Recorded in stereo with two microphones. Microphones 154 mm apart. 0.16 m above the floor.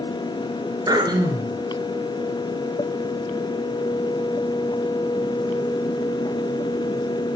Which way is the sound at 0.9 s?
25° right (ahead or behind).